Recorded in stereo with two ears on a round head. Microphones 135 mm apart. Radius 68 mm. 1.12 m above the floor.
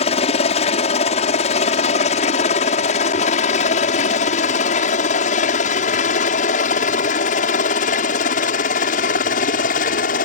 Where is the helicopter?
45° left (ahead or behind); by 10.2 s 60° left (ahead or behind).